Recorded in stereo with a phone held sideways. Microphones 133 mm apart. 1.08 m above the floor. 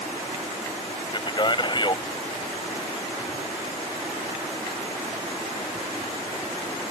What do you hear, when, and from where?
1.1 s a man speaking: 35° left (ahead or behind)